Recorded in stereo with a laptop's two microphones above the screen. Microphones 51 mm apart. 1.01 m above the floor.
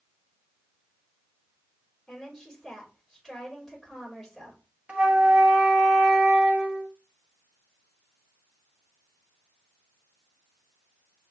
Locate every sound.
2.1 s a woman speaking: 5° right (ahead or behind), 3 m
4.9 s a flute: 25° right (ahead or behind), 0.8 m